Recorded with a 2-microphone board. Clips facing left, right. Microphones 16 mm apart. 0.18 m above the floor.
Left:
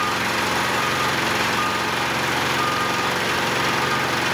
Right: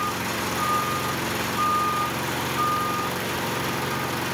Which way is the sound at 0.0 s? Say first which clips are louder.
Left 5 dB; 30° left (ahead or behind).